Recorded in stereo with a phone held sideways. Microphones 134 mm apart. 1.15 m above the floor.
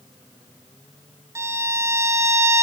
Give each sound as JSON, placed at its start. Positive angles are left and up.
{"t": 1.4, "sound": "a violin", "side_deg": -25, "distance_m": 0.6}